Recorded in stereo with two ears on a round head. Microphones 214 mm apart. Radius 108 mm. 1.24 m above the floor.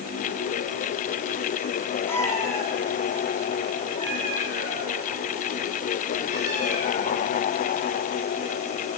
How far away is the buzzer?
I don't hear a buzzer.